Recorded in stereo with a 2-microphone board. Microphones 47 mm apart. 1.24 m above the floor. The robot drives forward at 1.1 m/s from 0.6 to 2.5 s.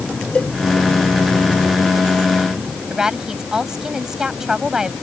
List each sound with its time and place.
0.3 s a cowbell: 25° left (ahead or behind)
2.9 s a woman speaking: 15° right (ahead or behind)